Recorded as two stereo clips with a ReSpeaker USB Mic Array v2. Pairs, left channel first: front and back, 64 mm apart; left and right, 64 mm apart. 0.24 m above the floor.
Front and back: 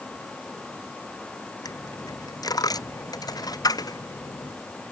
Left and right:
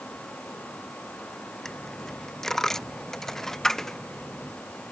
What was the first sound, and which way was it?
A dropped coin, 5° left.